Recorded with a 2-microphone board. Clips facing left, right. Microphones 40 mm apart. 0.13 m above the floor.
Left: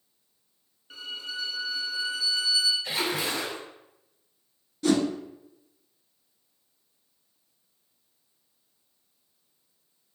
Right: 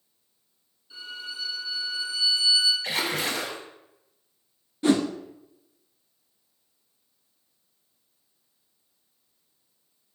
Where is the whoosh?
25° right (ahead or behind), 0.5 m.